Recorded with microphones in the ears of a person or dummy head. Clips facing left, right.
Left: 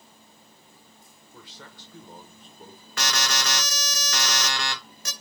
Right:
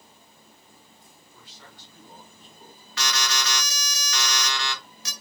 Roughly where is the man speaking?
Left.